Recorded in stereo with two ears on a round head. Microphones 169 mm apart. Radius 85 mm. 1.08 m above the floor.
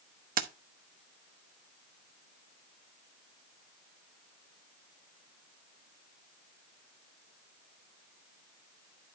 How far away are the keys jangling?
About 0.8 m.